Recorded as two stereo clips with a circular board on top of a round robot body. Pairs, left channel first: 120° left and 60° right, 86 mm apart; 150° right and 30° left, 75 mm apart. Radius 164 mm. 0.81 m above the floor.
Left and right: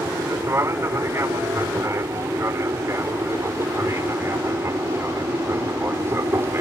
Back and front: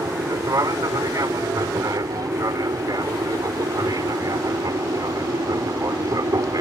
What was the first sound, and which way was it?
An aircraft, 5° right.